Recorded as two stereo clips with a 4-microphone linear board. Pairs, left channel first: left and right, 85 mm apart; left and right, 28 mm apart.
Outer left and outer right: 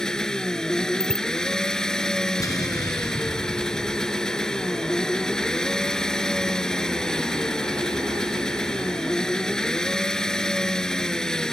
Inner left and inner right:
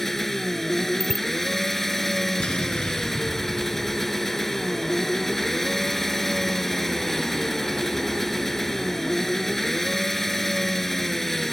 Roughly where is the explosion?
Left.